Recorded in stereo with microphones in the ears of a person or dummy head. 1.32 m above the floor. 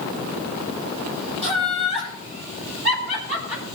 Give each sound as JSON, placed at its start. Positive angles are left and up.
{"t": 1.4, "sound": "laughter", "side_deg": -65, "distance_m": 7.5}